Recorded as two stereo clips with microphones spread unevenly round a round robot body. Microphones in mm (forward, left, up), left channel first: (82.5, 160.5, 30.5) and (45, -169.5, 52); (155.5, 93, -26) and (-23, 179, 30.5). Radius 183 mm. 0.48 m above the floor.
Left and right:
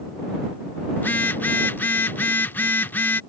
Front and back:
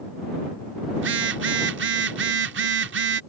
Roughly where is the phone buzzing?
Behind.